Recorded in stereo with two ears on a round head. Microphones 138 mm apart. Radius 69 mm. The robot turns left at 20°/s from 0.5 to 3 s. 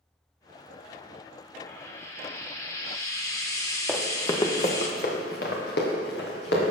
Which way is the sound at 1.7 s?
15° left (ahead or behind).